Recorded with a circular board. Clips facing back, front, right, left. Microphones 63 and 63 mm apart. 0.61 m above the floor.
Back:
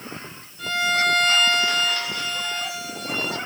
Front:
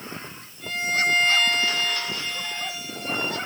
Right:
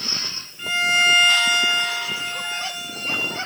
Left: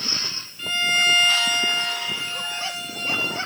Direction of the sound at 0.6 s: 165° right.